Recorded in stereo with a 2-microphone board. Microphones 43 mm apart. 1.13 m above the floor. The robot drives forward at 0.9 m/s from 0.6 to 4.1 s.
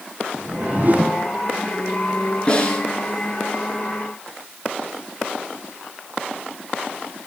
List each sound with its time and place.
0.3 s a whoosh: 40° right (ahead or behind), 0.9 m
2.5 s a snare drum: 30° left (ahead or behind), 9 m; by 2.8 s 25° left (ahead or behind), 9.5 m